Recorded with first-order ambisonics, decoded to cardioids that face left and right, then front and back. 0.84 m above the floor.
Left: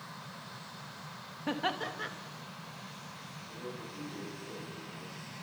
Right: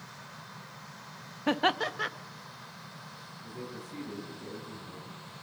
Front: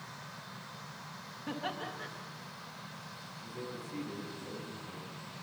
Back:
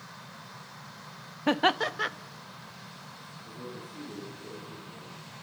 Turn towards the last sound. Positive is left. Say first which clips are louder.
# right 1 dB, even
turn(degrees=-45)